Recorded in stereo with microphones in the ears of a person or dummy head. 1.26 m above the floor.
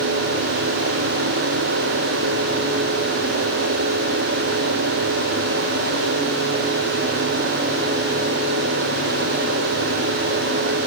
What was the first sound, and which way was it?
Only background noise.